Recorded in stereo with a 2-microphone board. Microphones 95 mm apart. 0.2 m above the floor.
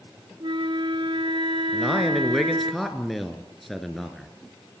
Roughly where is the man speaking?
Centre.